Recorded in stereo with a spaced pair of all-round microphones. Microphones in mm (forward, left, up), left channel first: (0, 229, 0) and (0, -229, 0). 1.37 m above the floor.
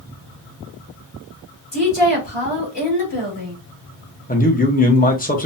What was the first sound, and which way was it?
A woman speaking, 65° left (ahead or behind).